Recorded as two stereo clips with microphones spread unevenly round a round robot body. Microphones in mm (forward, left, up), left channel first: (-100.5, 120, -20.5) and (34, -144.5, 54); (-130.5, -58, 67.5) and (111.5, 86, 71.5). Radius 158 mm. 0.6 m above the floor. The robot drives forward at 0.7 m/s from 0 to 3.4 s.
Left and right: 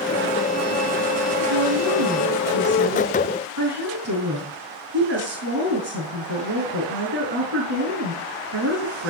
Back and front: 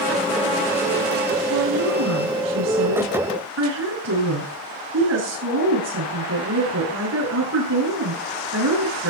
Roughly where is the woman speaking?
Ahead.